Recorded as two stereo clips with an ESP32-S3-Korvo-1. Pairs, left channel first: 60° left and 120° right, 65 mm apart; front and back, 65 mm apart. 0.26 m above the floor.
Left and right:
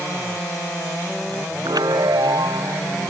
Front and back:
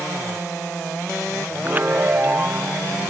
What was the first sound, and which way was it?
A chime, 115° right.